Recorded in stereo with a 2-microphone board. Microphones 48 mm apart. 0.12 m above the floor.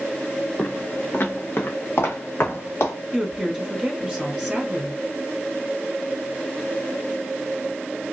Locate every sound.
0.6 s footsteps: 35° left (ahead or behind), 0.9 m; by 2.9 s 70° left (ahead or behind), 2 m
3.1 s a woman speaking: 15° right (ahead or behind), 1.1 m